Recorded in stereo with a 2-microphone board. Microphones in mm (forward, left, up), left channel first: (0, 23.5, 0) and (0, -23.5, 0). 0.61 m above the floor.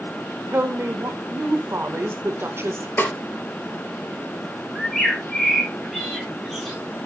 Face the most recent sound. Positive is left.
turn(degrees=5)  # may be behind; listen again after turning